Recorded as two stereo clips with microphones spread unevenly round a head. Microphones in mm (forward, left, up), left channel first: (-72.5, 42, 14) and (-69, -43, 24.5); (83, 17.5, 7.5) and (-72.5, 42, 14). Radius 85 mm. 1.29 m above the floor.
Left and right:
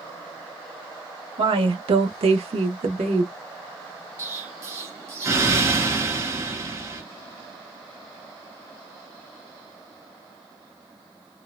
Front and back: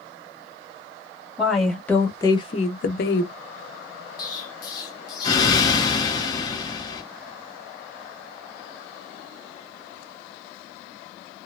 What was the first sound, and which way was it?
A woman speaking, 105° right.